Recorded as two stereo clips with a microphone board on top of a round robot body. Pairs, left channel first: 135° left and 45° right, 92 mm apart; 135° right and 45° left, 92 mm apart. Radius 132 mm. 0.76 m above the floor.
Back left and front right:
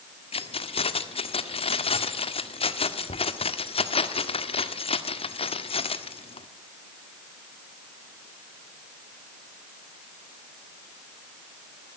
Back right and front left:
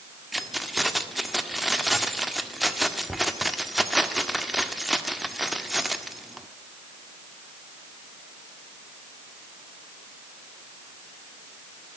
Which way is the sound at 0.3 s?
135° left.